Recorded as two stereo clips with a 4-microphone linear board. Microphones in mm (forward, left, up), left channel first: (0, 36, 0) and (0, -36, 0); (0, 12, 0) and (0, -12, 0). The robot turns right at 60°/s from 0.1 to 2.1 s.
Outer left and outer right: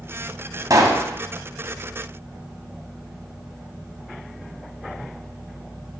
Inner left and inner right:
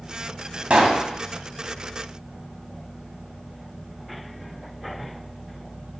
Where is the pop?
55° right (ahead or behind), 1.7 m; by 1.1 s 35° right (ahead or behind), 1.7 m.